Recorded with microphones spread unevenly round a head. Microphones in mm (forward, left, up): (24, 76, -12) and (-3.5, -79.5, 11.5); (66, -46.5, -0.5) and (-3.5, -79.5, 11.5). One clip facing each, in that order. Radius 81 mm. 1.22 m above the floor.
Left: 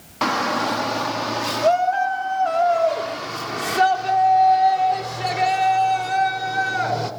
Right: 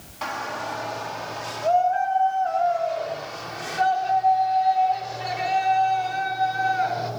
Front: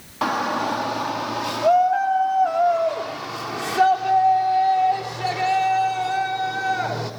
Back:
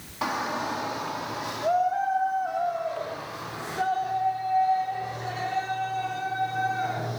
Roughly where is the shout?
Left.